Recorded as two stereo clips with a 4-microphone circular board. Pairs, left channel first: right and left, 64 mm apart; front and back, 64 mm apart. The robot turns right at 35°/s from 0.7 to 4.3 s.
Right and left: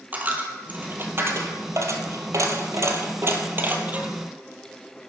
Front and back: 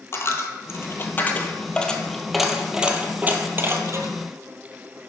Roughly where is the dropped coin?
Ahead left.